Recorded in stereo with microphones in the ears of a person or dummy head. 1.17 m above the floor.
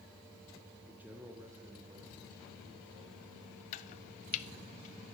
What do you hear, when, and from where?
0.8 s a man speaking: 5° right (ahead or behind), 0.6 m; by 3.6 s 15° right (ahead or behind), 3 m
3.7 s chopping: 40° left (ahead or behind), 0.5 m